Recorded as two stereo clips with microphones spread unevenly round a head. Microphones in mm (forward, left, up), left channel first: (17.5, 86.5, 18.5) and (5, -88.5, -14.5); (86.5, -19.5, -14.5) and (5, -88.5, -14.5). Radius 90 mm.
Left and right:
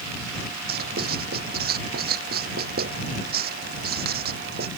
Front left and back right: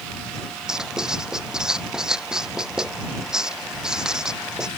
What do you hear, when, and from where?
0.7 s writing: 55° right